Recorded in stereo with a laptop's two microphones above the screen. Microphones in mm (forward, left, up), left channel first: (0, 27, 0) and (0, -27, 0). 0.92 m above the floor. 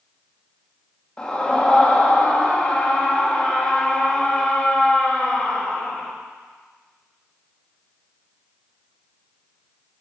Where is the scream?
20° left (ahead or behind), 1.4 m.